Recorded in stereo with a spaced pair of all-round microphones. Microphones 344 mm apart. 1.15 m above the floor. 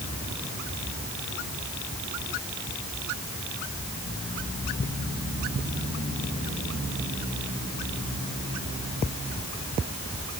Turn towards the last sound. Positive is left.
No sound to turn to.